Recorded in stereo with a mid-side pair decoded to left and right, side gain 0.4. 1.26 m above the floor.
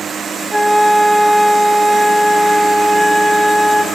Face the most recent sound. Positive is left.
turn(degrees=0)